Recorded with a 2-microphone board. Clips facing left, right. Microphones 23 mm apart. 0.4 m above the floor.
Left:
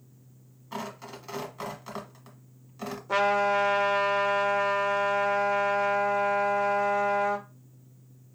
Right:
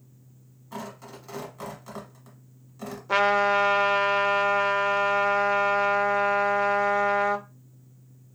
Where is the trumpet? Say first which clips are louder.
Right 3 dB; 35° right (ahead or behind), 0.6 m.